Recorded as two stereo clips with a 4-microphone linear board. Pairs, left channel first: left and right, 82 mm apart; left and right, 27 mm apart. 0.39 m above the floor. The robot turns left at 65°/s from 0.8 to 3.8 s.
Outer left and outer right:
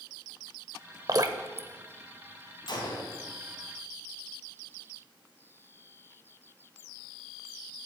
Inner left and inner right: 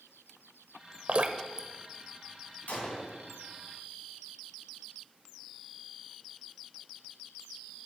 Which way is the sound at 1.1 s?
50° right (ahead or behind).